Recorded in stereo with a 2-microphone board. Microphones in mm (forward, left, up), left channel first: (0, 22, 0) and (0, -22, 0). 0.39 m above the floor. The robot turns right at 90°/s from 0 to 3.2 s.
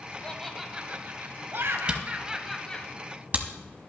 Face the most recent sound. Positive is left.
turn(degrees=-35)  # may be behind; listen again after turning